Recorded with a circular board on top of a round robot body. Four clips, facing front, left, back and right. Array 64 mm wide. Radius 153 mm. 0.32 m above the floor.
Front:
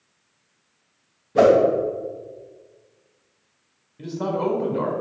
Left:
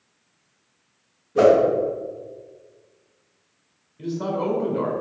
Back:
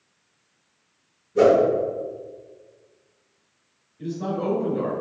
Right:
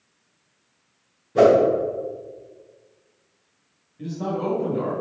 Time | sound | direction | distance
1.4 | a whoosh | 25° right | 2.5 m
4.0 | a man speaking | 5° left | 4 m